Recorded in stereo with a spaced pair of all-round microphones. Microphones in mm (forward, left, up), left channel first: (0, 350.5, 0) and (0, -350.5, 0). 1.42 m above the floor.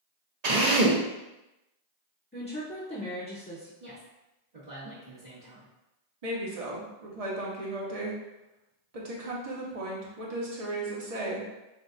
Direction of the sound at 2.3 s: 15° left (ahead or behind).